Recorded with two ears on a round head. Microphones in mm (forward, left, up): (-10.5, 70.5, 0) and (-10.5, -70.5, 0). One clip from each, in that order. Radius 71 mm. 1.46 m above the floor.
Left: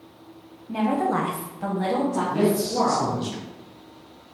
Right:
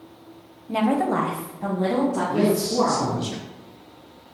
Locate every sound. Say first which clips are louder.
0.7 s a woman speaking: right 1 dB; 35° right (ahead or behind), 0.7 m; by 3.3 s 85° left, 2.5 m
2.3 s a man speaking: right 1 dB; 5° right (ahead or behind), 0.7 m